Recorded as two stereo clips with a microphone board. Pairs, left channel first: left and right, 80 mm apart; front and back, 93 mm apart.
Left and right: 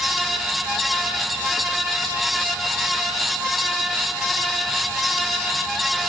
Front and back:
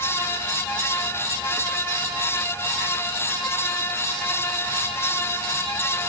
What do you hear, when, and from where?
Only background noise.